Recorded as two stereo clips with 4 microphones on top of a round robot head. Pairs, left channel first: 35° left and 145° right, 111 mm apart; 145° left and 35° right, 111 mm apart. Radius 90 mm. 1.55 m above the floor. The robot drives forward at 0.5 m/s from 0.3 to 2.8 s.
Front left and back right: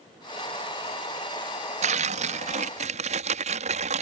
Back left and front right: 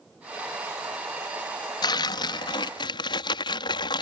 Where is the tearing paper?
165° right.